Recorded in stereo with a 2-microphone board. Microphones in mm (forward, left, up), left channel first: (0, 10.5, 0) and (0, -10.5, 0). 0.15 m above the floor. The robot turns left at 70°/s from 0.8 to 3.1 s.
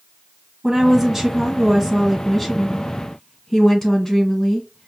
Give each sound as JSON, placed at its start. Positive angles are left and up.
{"t": 0.6, "sound": "a woman speaking", "side_deg": -20, "distance_m": 1.4}